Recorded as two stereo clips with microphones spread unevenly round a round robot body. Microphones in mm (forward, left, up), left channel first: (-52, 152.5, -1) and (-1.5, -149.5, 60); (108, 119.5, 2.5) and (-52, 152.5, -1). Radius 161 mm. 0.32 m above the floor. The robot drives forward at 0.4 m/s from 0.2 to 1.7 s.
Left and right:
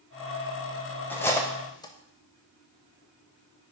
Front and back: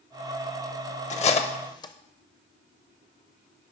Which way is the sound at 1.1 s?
25° left.